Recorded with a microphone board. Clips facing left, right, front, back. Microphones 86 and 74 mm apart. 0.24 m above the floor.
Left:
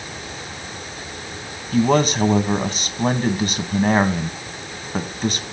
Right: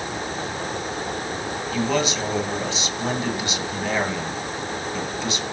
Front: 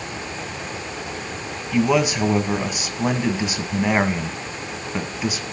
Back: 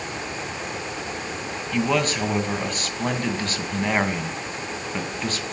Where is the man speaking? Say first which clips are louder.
Left 7 dB, front 4 dB; 75° left, 1.6 m.